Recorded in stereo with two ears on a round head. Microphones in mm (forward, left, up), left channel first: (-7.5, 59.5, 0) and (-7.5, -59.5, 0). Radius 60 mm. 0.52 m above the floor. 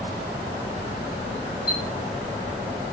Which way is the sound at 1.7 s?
70° left (ahead or behind).